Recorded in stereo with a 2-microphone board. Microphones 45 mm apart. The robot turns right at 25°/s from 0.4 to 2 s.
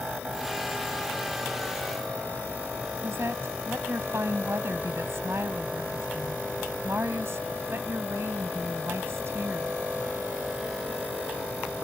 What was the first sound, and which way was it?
A woman speaking, 65° right (ahead or behind).